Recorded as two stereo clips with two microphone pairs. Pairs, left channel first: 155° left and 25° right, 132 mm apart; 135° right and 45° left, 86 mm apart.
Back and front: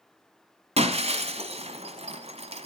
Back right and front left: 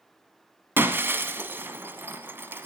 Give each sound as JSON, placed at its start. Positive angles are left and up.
{"t": 0.8, "sound": "breaking glass", "azimuth_deg": -10, "distance_m": 1.0}